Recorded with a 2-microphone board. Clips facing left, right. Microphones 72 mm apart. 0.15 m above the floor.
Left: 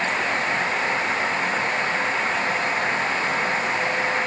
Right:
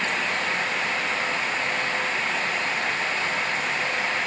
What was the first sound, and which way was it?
Only background noise.